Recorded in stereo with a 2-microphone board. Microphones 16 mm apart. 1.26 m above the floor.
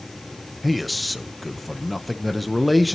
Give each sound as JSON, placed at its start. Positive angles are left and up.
{"t": 0.6, "sound": "a man speaking", "side_deg": 0, "distance_m": 0.7}